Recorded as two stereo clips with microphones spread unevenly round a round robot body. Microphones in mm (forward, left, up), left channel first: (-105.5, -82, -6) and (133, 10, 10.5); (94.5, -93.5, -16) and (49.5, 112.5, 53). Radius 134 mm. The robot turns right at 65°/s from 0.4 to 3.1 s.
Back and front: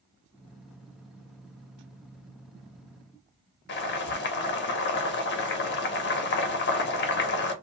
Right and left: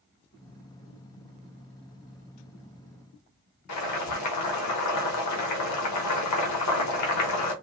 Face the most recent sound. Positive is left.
turn(degrees=-110)